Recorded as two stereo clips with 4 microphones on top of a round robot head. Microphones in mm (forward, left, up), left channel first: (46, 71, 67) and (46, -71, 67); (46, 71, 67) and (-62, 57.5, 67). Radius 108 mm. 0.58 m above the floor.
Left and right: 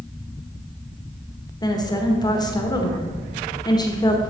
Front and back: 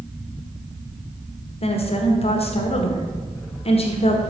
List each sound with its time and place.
1.6 s a woman speaking: 30° left, 1.6 m